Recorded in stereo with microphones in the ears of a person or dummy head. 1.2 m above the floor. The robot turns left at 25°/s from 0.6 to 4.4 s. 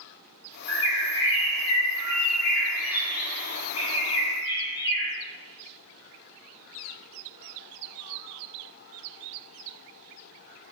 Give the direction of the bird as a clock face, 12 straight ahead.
8 o'clock.